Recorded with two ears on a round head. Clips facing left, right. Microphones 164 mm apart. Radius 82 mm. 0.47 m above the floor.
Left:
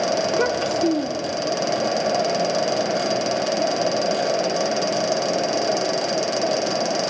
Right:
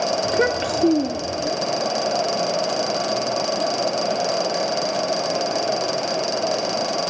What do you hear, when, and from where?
0.2 s a child speaking: 20° right (ahead or behind), 0.7 m